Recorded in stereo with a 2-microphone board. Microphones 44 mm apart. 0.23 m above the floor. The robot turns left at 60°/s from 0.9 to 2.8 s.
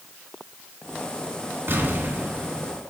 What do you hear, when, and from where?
1.7 s an explosion: 95° right, 2 m; by 2.8 s 165° right, 2 m